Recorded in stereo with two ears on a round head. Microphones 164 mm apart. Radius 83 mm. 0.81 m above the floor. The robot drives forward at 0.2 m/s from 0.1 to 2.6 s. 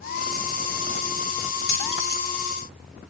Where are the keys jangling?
60° left (ahead or behind), 1.9 m.